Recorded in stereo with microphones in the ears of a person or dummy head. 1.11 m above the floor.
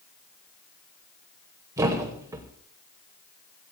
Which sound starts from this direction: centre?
A thud, at 1.8 s.